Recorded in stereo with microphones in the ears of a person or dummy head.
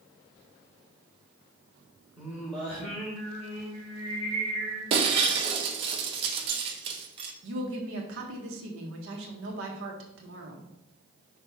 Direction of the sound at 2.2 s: 5° right (ahead or behind).